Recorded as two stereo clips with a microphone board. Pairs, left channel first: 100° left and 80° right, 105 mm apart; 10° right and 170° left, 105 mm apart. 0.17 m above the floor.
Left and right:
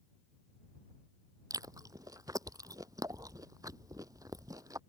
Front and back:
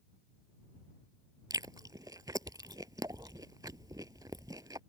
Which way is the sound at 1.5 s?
135° right.